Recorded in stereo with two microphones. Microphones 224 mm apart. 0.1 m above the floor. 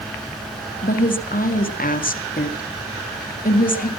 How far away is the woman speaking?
About 1.8 m.